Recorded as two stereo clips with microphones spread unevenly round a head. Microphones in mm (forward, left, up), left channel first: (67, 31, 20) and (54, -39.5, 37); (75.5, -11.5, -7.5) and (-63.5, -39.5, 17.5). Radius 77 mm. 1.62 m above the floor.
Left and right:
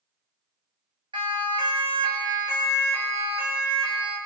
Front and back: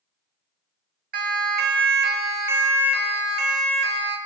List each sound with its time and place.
1.1 s a siren: 150° right, 3 m; by 4.2 s straight behind, 3.5 m